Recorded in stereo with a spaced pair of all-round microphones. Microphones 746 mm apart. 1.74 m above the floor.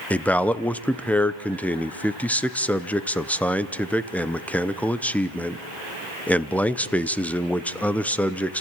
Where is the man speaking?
Centre (ahead or behind), 0.6 m.